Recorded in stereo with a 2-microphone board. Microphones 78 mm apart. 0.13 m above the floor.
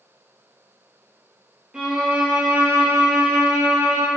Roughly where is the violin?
Centre.